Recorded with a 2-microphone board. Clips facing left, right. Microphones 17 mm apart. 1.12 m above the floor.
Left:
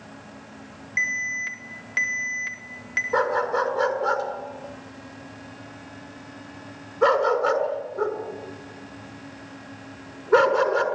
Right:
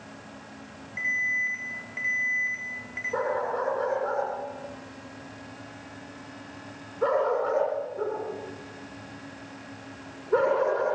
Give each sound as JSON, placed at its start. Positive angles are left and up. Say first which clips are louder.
{"t": 1.0, "sound": "an alarm", "louder": "left 1 dB", "side_deg": 65, "distance_m": 5.0}
{"t": 3.1, "sound": "a dog barking", "louder": "left 5 dB", "side_deg": 85, "distance_m": 6.5}